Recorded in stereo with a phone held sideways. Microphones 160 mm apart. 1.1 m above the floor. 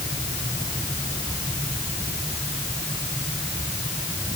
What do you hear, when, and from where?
Only background noise.